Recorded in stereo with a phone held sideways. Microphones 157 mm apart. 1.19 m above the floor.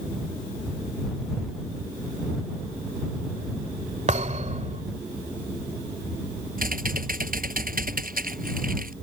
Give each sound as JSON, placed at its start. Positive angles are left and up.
{"t": 4.1, "sound": "a thud", "side_deg": -50}
{"t": 6.6, "sound": "typing on a keyboard", "side_deg": -65}